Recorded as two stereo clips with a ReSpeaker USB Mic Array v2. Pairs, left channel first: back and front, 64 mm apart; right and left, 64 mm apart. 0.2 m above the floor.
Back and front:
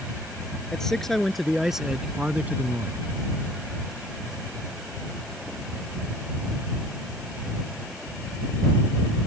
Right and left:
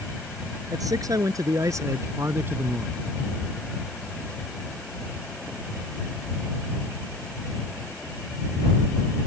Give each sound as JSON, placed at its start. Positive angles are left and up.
{"t": 0.7, "sound": "a man speaking", "azimuth_deg": 100}